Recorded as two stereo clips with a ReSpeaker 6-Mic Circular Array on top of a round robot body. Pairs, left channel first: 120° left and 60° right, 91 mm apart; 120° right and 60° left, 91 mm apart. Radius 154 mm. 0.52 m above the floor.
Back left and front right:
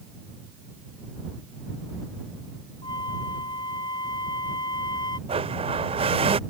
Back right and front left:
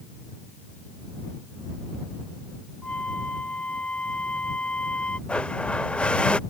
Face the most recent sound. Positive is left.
turn(degrees=-40)